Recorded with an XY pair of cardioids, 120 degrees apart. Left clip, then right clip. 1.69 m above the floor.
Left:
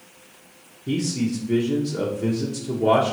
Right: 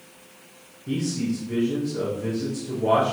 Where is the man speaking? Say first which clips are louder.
Left 2 dB; 35° left, 0.9 m.